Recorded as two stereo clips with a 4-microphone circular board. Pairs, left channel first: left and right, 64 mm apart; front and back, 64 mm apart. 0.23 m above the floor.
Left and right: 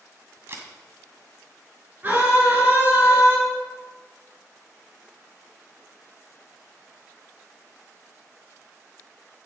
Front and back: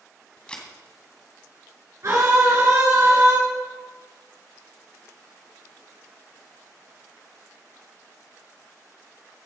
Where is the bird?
I don't hear a bird.